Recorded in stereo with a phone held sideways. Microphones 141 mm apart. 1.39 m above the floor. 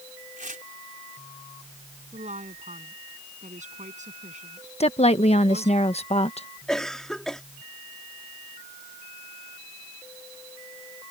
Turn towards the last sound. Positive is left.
turn(degrees=5)  # may be behind; listen again after turning